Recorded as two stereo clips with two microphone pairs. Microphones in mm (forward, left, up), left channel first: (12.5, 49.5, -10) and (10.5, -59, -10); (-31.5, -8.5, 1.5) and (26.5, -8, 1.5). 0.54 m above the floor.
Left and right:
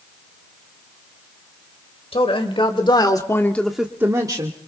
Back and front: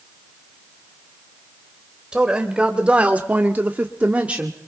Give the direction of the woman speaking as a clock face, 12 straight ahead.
9 o'clock.